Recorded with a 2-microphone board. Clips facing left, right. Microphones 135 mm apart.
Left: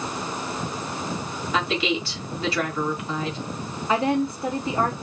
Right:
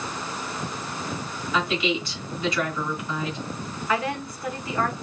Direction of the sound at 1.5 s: 30° left (ahead or behind).